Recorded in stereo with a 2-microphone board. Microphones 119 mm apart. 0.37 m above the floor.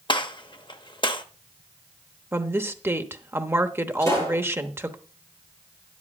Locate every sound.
0.1 s a gunshot: 40° left (ahead or behind), 0.8 m
2.3 s a woman speaking: 20° right (ahead or behind), 0.8 m
4.0 s a pop: 25° left (ahead or behind), 9 m